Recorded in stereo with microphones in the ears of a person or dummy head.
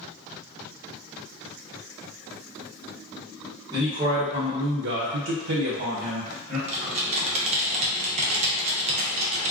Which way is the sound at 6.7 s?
30° right (ahead or behind).